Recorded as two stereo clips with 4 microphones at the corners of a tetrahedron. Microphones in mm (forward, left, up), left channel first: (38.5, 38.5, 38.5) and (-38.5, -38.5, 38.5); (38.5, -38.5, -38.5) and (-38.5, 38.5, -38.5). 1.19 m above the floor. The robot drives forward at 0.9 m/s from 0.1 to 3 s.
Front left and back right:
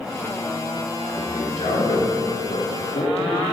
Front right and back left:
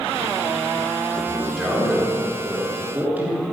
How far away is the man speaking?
About 4.5 m.